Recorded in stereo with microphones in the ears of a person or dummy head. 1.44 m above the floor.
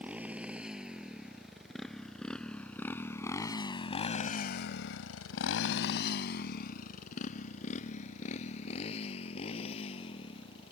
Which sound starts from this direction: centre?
A motorcycle, at 0.0 s.